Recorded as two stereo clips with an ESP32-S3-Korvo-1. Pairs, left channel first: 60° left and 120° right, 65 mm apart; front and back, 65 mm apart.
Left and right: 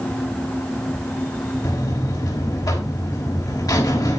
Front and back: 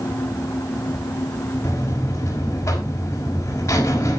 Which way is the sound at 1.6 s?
40° left.